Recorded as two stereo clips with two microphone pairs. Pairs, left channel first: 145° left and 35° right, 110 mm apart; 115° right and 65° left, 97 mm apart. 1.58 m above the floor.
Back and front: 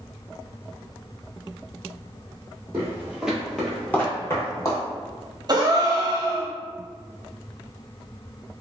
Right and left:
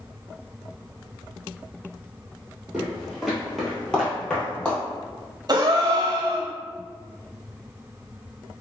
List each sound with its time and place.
2.7 s footsteps: 5° right, 1.7 m; by 4.8 s 175° left, 2 m
5.5 s a gasp: 15° left, 0.6 m